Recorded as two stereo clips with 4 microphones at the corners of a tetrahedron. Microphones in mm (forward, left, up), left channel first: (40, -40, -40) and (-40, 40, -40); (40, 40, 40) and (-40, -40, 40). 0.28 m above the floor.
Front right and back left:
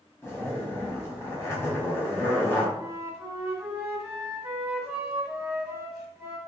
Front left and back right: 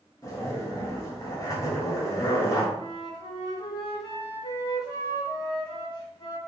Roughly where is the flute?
Ahead left.